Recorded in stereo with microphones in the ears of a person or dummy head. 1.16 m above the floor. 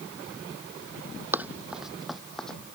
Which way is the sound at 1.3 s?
10° right (ahead or behind).